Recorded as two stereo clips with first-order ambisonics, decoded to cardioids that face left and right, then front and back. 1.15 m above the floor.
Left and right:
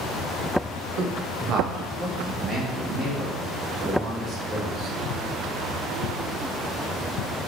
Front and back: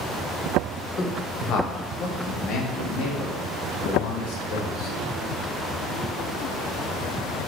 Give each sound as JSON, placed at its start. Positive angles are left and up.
{"t": 1.0, "sound": "a man speaking", "azimuth_deg": -65, "distance_m": 1.1}